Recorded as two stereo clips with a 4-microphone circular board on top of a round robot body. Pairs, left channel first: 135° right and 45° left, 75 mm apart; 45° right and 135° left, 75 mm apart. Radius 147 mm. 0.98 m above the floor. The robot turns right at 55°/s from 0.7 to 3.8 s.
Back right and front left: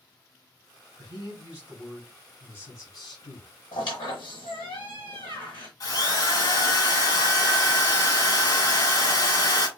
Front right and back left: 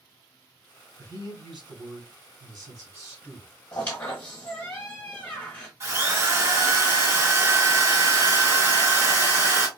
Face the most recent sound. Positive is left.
turn(degrees=-165)